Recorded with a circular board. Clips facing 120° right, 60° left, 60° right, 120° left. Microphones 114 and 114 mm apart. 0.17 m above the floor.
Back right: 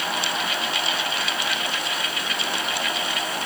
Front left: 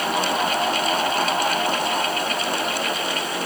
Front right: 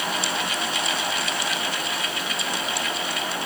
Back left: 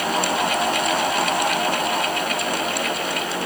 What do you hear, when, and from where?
Only background noise.